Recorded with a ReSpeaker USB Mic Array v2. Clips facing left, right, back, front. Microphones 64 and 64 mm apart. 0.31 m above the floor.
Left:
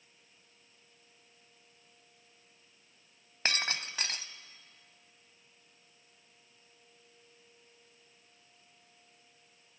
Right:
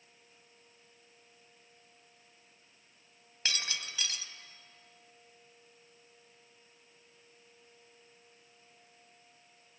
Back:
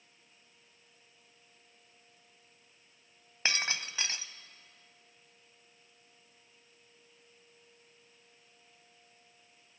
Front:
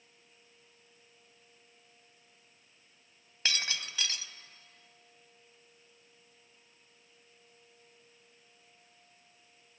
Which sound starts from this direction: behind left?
Breaking glass, at 3.5 s.